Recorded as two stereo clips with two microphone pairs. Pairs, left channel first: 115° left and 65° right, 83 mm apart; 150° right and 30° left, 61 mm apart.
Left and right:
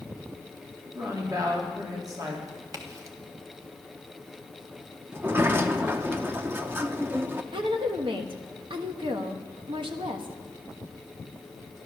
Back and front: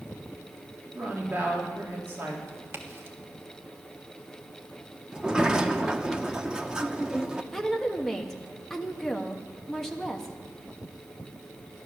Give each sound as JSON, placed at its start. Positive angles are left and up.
{"t": 0.9, "sound": "a woman speaking", "azimuth_deg": -25, "distance_m": 3.0}
{"t": 2.5, "sound": "a crack", "azimuth_deg": -20, "distance_m": 1.4}
{"t": 5.1, "sound": "a sliding door", "azimuth_deg": -40, "distance_m": 0.7}
{"t": 7.5, "sound": "a woman speaking", "azimuth_deg": -70, "distance_m": 1.5}